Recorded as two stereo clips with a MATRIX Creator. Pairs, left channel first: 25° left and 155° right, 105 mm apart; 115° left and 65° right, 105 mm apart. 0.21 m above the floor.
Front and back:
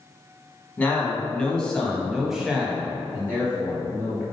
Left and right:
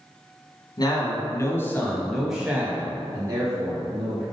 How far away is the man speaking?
About 1.5 m.